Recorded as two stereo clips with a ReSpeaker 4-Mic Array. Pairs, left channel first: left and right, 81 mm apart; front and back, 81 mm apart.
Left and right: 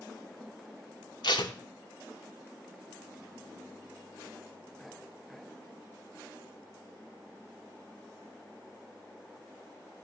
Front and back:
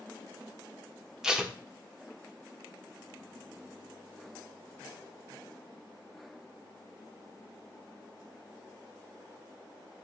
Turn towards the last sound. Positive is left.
turn(degrees=100)